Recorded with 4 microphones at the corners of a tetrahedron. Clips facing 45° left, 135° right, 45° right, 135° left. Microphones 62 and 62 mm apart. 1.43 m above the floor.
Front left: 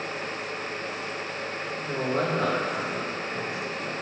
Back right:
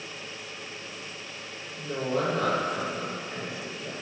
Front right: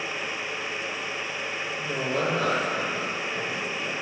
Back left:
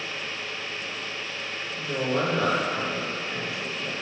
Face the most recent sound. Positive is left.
turn(degrees=90)